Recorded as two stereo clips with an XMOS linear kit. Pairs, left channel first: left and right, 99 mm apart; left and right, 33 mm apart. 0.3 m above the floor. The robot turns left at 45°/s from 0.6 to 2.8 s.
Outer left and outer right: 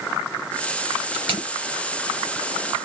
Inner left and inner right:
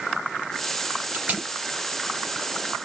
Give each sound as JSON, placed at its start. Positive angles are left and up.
{"t": 1.1, "sound": "tape being pulled", "side_deg": -65, "distance_m": 3.5}